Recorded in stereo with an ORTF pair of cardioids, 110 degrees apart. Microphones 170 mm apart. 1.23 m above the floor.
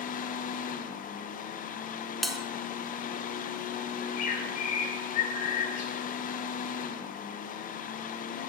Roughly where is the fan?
Ahead left.